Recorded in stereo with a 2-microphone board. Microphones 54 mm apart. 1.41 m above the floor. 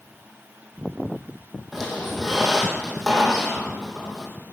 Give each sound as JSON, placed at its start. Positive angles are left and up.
{"t": 1.7, "sound": "a squeak", "side_deg": -5, "distance_m": 2.5}